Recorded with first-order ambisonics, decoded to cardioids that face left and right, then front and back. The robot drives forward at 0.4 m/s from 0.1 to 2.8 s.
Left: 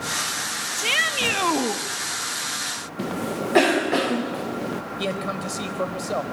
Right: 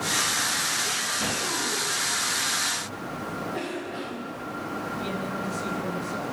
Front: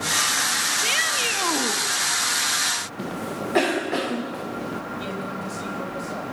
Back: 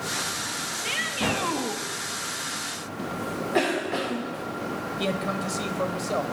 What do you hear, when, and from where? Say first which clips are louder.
0.8 s a shout: left 6 dB, front 3 dB; 70° left, 1.7 m; by 1.8 s 85° left, 1.6 m
3.0 s a cough: left 5 dB, front 1 dB; 80° left, 1.1 m
5.0 s a man speaking: left 4 dB, back 3 dB; 120° left, 4 m